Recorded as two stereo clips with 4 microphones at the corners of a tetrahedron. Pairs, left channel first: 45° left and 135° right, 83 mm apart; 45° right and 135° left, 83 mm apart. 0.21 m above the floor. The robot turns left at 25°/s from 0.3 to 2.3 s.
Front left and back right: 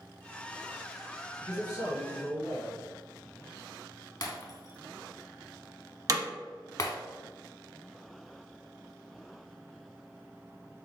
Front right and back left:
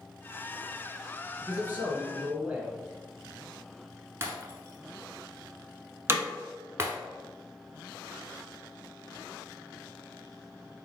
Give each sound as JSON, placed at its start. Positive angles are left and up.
{"t": 1.4, "sound": "a man speaking", "azimuth_deg": 85, "distance_m": 1.4}
{"t": 4.2, "sound": "breaking glass", "azimuth_deg": 80, "distance_m": 0.7}
{"t": 6.1, "sound": "hammering", "azimuth_deg": -170, "distance_m": 0.6}